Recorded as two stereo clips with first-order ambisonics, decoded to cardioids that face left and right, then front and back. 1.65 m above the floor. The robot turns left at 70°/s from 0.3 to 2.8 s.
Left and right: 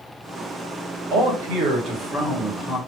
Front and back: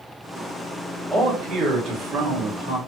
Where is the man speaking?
85° right, 1.4 m; by 2.8 s 155° left, 1.4 m.